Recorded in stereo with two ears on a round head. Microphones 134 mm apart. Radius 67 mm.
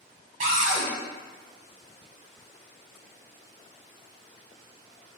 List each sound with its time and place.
0.4 s a cupboard door: 55° right (ahead or behind), 1.3 m